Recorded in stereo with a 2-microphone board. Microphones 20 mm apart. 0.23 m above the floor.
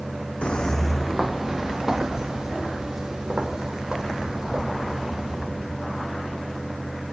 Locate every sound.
0.4 s footsteps: 65° left (ahead or behind), 0.7 m; by 5.5 s 30° right (ahead or behind), 7.5 m